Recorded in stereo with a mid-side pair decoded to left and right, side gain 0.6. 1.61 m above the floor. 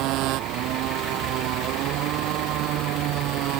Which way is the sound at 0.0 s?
65° right.